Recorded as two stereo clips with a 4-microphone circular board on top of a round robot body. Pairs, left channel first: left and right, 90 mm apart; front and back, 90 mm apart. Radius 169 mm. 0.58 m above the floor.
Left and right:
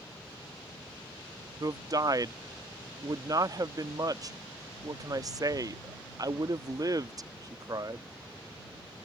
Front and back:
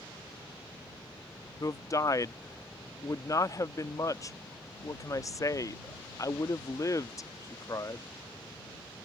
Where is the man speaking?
50° right.